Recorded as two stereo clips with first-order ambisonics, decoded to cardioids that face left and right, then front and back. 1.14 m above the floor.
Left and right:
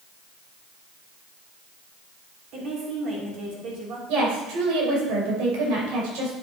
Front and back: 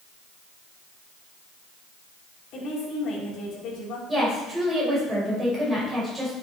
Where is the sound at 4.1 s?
100° right, 4.5 m.